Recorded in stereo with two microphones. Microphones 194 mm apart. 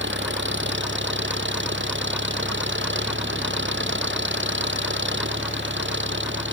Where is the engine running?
80° right.